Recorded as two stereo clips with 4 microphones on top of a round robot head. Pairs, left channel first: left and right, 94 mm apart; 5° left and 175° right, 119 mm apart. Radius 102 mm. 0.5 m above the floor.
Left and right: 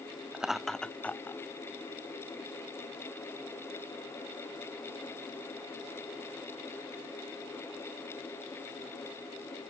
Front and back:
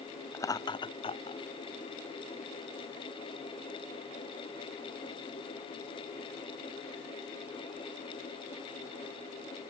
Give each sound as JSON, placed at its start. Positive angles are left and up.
{"t": 0.3, "sound": "laughter", "azimuth_deg": -25}